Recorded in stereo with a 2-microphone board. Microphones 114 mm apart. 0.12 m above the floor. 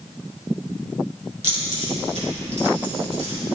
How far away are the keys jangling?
About 3 m.